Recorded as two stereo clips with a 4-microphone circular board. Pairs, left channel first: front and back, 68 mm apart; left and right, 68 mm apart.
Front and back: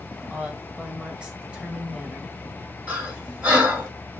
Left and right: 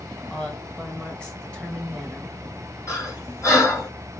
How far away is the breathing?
About 2.5 m.